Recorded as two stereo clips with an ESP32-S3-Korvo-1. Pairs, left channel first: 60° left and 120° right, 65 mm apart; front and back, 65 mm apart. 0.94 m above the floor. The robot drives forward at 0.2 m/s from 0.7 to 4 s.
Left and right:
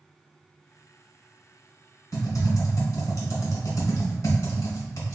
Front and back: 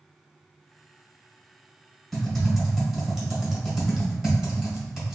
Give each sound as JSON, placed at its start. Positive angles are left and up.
{"t": 2.1, "sound": "typing on a keyboard", "azimuth_deg": 85, "distance_m": 1.6}